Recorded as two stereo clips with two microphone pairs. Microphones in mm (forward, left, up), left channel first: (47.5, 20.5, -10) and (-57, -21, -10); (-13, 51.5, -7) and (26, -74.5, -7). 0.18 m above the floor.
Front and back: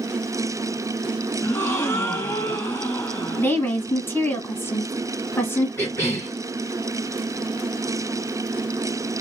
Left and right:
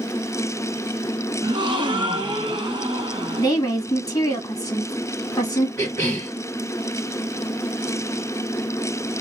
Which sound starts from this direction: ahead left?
A cough, at 5.8 s.